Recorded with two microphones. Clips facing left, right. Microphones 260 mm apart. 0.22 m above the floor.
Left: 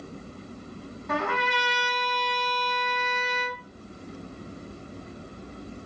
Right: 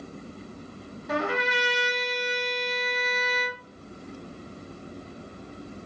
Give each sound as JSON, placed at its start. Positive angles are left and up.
{"t": 1.1, "sound": "a trumpet", "side_deg": -10, "distance_m": 2.0}